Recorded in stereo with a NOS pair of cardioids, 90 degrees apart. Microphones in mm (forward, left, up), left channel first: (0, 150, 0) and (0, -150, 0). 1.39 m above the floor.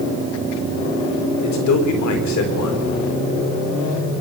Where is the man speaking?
65° left, 4 m.